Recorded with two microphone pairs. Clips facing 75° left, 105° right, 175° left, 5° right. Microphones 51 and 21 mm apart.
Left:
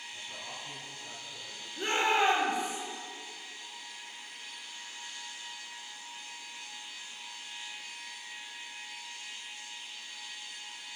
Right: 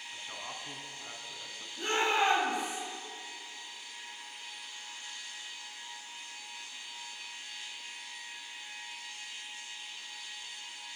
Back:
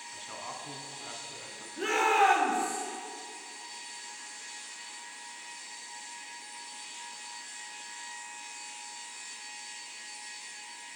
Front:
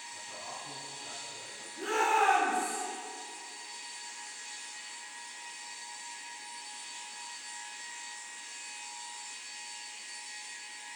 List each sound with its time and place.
0.1 s a man speaking: 140° right, 3 m
1.8 s a shout: 140° left, 6 m